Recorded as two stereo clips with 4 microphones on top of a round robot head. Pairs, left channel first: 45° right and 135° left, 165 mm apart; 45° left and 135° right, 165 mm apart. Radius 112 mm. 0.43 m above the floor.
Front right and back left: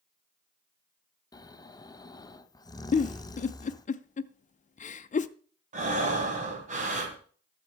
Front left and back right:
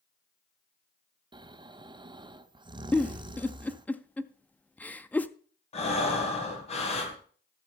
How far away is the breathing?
About 2 m.